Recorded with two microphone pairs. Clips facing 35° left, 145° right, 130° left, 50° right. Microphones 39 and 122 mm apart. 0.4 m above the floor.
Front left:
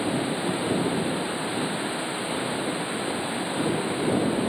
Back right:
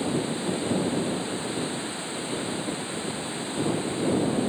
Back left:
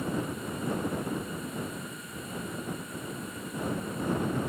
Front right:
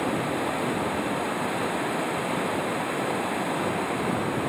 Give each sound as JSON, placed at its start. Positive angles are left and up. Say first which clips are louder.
{"t": 0.0, "sound": "running water", "louder": "front left 1 dB, front right 7 dB", "azimuth_deg": -35}